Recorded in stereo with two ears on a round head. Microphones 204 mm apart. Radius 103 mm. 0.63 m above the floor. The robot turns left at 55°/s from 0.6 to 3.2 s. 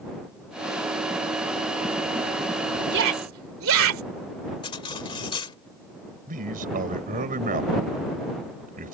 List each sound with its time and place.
2.9 s a shout: 50° right (ahead or behind); by 4.0 s 65° right (ahead or behind)
4.6 s cutlery clinking: 20° left (ahead or behind)
6.3 s a man speaking: 40° right (ahead or behind)